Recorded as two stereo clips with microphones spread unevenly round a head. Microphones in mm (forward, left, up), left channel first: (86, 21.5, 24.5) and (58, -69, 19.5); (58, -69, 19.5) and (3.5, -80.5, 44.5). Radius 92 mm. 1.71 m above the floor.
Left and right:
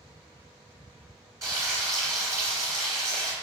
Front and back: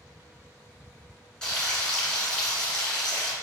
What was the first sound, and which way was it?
Frying, 105° right.